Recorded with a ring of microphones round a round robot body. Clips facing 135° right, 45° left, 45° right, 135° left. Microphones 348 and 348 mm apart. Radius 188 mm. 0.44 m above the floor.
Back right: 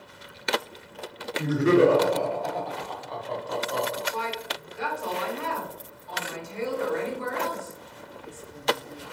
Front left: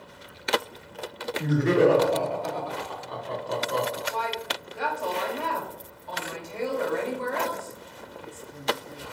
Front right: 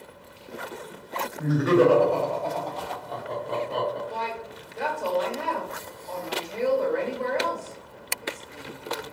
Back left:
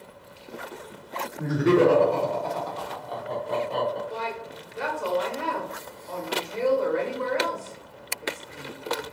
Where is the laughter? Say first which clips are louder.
Back right 2 dB, even; 160° left, 1.2 m; by 4.0 s 25° left, 1.2 m.